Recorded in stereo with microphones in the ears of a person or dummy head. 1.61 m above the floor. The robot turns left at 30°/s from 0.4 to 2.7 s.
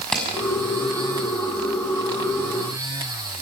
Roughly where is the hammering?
Centre.